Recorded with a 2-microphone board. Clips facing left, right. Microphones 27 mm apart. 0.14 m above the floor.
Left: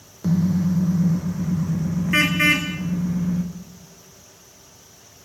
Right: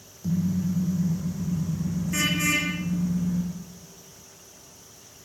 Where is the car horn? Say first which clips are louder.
Left 6 dB; 55° left (ahead or behind), 3.5 m; by 3.4 s 40° left (ahead or behind), 6.5 m.